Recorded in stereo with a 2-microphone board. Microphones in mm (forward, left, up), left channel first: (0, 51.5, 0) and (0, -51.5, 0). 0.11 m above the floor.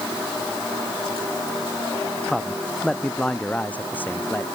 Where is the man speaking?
Centre (ahead or behind); by 4.5 s 20° left (ahead or behind).